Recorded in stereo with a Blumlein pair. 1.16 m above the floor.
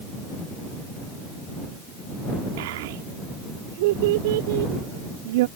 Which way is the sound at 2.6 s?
50° right.